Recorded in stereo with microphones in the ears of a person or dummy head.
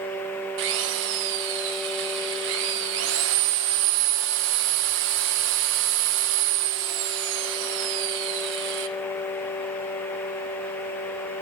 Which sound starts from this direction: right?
A drill, at 0.6 s.